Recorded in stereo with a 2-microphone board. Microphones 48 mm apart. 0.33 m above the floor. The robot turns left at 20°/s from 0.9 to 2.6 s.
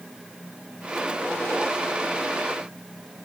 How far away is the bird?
No bird in this recording.